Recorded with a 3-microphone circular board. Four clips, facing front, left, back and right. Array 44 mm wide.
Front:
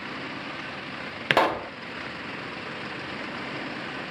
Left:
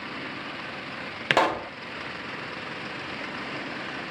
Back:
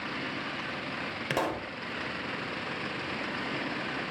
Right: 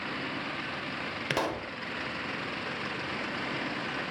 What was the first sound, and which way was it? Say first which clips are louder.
A pop: left 10 dB, front 10 dB; 35° left.